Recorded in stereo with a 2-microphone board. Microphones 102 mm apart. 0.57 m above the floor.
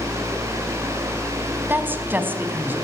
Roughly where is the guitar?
No guitar in this recording.